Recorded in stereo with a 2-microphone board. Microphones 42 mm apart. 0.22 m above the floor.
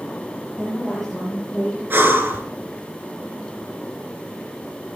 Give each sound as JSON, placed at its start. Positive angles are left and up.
{"t": 0.6, "sound": "a woman speaking", "side_deg": 5, "distance_m": 5.5}
{"t": 1.9, "sound": "breathing", "side_deg": -55, "distance_m": 1.8}